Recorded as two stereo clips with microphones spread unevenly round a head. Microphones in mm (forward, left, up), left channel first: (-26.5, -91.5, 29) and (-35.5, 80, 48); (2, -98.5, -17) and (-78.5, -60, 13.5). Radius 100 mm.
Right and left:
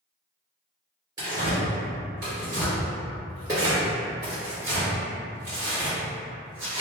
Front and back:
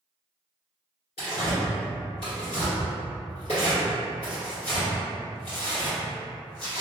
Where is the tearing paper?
30° left, 1.9 m.